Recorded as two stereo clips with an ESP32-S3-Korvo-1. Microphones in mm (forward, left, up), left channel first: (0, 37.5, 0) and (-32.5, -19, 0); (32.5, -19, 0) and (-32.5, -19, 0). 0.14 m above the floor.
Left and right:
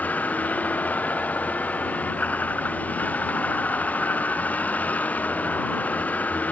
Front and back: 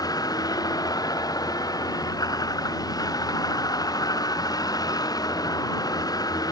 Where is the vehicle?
5° right.